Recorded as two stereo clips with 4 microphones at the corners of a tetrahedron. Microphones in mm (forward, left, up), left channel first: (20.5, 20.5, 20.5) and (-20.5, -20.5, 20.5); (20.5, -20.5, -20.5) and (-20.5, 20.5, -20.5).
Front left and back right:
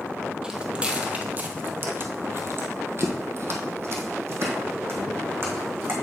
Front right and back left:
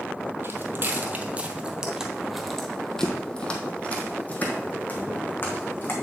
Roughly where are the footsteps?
Behind left.